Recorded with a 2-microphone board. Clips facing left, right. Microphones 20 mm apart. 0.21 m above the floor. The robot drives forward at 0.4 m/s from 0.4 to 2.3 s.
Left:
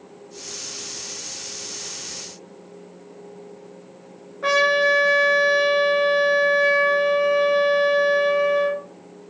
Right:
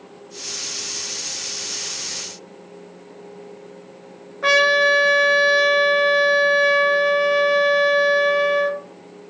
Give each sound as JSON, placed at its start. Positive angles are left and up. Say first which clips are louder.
{"t": 4.4, "sound": "a trumpet", "louder": "right 3 dB", "side_deg": -30, "distance_m": 2.5}